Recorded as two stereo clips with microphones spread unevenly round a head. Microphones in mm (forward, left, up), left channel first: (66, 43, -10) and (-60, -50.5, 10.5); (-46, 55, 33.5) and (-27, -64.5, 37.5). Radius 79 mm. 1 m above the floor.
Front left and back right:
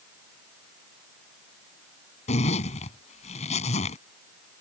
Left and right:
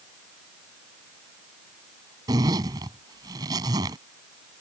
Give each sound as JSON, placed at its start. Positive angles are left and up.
{"t": 2.3, "sound": "a zipper", "azimuth_deg": -15}